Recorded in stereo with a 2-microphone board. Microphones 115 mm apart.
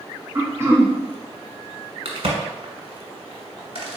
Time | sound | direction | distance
0.3 | throat clearing | 25° right (ahead or behind) | 0.8 m
2.0 | a crack | 60° right (ahead or behind) | 1.1 m